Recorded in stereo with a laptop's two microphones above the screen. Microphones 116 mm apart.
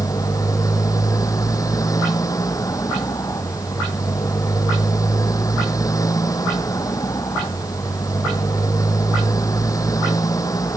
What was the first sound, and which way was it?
A motorcycle, 30° left (ahead or behind).